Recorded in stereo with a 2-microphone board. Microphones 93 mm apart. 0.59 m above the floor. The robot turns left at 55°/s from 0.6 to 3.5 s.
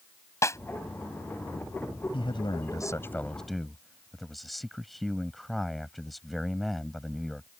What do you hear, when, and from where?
0.4 s a snare drum: 30° left (ahead or behind)
2.1 s a man speaking: 75° left; by 7.5 s straight ahead